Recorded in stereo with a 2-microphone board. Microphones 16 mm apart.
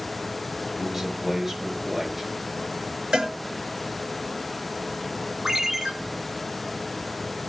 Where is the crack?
I don't hear a crack.